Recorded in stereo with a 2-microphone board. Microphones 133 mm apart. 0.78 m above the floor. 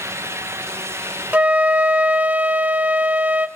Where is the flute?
10° right (ahead or behind), 0.5 m.